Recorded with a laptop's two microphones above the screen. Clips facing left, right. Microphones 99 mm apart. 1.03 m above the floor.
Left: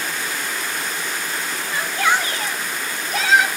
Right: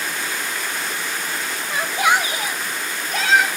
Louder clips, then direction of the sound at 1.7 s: Right 1 dB; 20° right (ahead or behind).